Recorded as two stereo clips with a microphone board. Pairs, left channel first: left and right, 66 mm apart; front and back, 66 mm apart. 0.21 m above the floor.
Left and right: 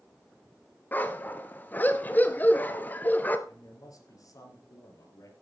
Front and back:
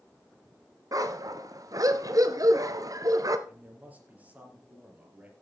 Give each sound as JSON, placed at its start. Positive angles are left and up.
{"t": 0.9, "sound": "a dog barking", "azimuth_deg": 150, "distance_m": 1.0}
{"t": 3.5, "sound": "a man speaking", "azimuth_deg": 115, "distance_m": 3.5}